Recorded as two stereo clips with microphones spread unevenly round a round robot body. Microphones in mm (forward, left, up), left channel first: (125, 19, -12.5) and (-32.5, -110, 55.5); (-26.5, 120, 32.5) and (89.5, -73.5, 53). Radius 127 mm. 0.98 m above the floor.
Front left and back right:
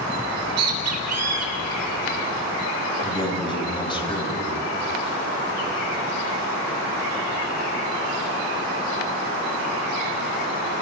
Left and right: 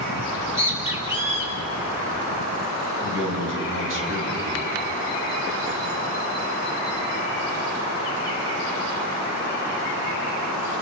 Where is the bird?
140° right, 3.5 m.